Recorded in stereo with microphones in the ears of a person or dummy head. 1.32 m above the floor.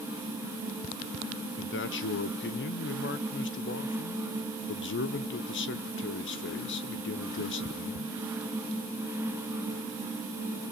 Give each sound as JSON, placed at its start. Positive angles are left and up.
{"t": 1.6, "sound": "a man speaking", "side_deg": 55, "distance_m": 0.9}